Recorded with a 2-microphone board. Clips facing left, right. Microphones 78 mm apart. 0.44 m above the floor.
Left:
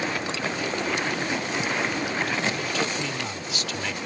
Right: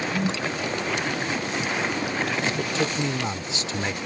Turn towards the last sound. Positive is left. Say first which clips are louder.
# right 2 dB
turn(degrees=-25)  # may be behind; listen again after turning